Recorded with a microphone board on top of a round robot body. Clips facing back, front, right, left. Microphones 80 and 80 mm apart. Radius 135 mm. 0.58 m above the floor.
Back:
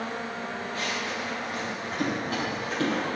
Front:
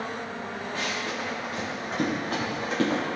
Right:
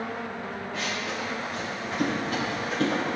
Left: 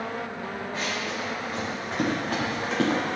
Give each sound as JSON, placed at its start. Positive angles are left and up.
{"t": 0.7, "sound": "running footsteps", "azimuth_deg": 35, "distance_m": 3.0}